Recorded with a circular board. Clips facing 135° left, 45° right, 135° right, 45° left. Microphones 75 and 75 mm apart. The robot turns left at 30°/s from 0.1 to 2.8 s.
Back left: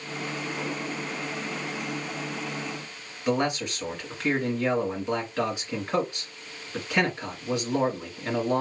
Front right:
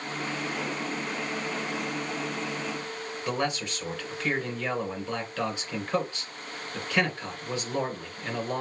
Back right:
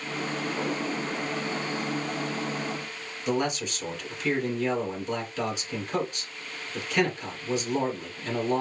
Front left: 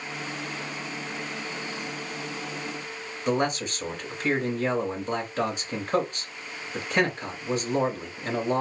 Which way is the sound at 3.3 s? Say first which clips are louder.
Back left 5 dB, front left 2 dB; 70° left.